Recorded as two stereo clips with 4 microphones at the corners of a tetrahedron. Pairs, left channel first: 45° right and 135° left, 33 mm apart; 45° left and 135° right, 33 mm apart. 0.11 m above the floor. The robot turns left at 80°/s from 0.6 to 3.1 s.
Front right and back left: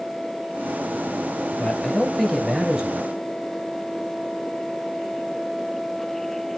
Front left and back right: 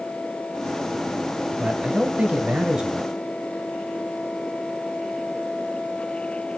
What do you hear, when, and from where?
1.6 s a man speaking: 75° right, 1.5 m; by 3.1 s 165° left, 1.5 m